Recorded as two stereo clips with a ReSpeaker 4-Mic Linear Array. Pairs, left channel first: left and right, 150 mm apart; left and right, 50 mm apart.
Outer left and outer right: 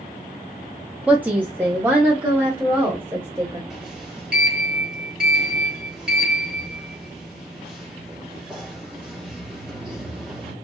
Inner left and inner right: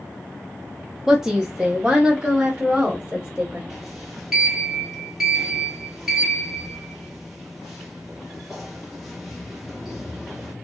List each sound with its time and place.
1.1 s a woman speaking: 10° right (ahead or behind), 0.5 m; by 3.6 s 15° right (ahead or behind), 1.6 m
3.7 s a sliding door: 5° right (ahead or behind), 1.3 m